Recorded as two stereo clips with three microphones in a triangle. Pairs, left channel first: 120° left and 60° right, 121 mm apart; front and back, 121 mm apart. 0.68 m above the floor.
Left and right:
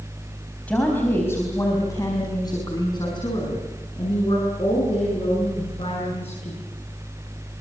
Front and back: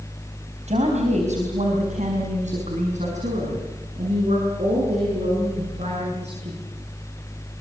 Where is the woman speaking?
160° right, 4 m; by 6.6 s 155° left, 10.5 m.